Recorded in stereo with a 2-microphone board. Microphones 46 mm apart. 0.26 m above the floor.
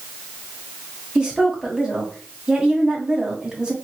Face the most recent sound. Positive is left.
turn(degrees=-20)  # may be behind; listen again after turning